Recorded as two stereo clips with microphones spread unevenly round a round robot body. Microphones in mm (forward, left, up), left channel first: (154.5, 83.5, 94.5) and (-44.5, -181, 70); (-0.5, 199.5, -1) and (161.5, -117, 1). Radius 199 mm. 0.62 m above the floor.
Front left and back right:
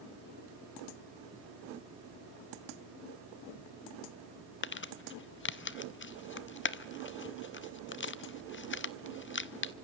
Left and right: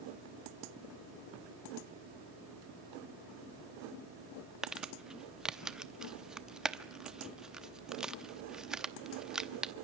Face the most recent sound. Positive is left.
turn(degrees=25)